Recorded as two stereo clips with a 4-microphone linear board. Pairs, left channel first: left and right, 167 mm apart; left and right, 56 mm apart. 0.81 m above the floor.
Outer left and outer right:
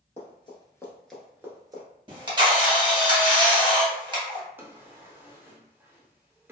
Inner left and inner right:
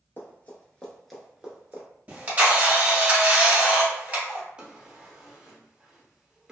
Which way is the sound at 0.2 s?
40° left (ahead or behind).